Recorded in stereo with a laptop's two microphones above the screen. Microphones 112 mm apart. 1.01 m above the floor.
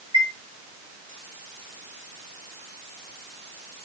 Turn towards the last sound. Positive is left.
turn(degrees=-30)  # may be behind; listen again after turning